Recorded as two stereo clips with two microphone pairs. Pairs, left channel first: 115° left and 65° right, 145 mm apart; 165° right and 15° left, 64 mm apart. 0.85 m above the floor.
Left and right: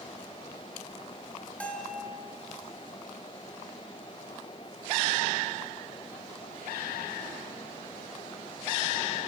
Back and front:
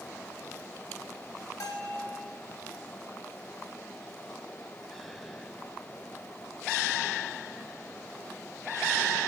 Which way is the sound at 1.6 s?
160° right.